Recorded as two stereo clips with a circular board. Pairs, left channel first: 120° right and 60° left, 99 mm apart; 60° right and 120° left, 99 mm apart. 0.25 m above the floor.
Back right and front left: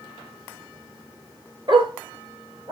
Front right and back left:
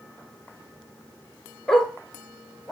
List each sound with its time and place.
1.7 s a dog barking: 25° left, 1.4 m; by 2.7 s 35° left, 2.5 m